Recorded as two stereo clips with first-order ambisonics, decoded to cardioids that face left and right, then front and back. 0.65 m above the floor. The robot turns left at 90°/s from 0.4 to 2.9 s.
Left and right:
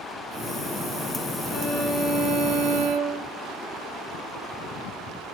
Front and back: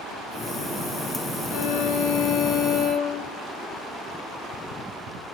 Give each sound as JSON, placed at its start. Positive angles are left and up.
{"t": 1.5, "sound": "a violin", "azimuth_deg": 20, "distance_m": 9.0}